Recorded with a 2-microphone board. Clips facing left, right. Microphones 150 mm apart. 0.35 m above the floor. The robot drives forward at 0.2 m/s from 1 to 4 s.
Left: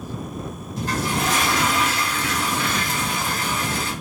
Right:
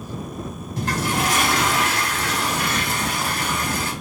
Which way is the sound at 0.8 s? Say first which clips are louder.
Right 1 dB; 80° right.